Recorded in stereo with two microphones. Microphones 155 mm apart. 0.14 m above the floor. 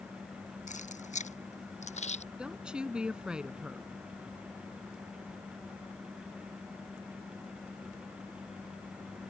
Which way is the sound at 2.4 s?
5° right (ahead or behind).